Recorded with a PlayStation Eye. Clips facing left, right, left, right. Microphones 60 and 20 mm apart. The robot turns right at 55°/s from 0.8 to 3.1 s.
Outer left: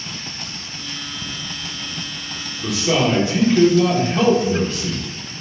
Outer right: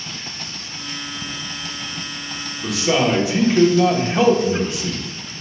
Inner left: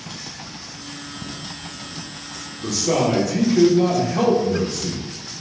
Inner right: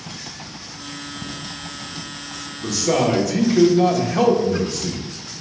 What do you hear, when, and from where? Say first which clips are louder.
2.6 s a man speaking: even, inner right 1 dB; 5° left (ahead or behind), 1.0 m; by 5.0 s 15° right (ahead or behind), 1.0 m